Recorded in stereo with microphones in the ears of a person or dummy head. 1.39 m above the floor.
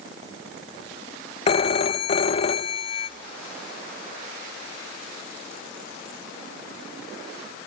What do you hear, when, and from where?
1.5 s a phone ringing: 40° left (ahead or behind), 0.9 m